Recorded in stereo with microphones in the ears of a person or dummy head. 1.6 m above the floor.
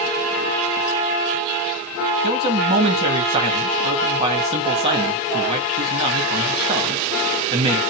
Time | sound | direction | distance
2.2 | a man speaking | 30° right (ahead or behind) | 2 m